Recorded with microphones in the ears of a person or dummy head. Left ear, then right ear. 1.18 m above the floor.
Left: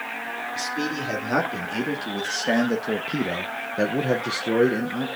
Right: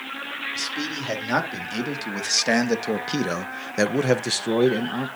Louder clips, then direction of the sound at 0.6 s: Left 1 dB; 15° right (ahead or behind).